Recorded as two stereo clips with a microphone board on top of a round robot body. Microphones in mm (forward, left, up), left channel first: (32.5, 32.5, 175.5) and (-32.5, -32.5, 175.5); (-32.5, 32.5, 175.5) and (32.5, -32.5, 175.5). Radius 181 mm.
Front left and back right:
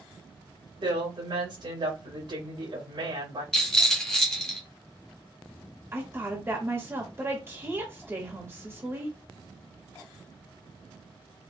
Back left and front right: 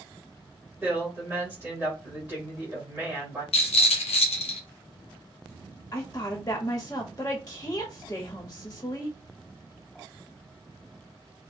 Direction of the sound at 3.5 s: 130° left.